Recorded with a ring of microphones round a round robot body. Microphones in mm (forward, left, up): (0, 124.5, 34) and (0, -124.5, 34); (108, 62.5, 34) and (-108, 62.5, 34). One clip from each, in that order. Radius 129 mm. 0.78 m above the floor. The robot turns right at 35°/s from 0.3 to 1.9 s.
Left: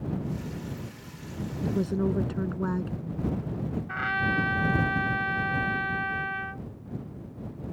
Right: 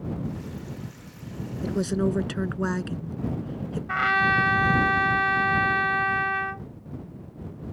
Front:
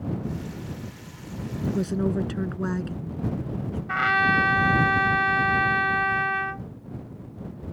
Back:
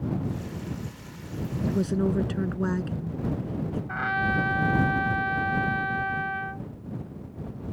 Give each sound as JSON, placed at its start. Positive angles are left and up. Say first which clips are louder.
{"t": 1.6, "sound": "a woman speaking", "louder": "right 3 dB, even", "azimuth_deg": -95}
{"t": 3.9, "sound": "a trumpet", "louder": "right 6 dB, front 6 dB", "azimuth_deg": -40}